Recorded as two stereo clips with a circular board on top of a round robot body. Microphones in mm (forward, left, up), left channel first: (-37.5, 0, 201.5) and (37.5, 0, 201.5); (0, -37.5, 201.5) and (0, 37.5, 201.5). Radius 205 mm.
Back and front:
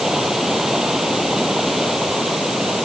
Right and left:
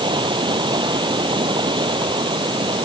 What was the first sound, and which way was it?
Running water, 85° left.